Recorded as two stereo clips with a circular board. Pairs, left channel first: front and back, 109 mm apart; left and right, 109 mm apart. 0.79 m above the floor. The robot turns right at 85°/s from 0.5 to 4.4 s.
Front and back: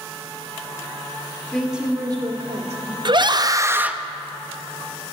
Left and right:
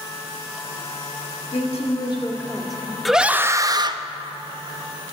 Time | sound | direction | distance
1.5 | a woman speaking | 75° left | 1.7 m
3.0 | a scream | straight behind | 0.6 m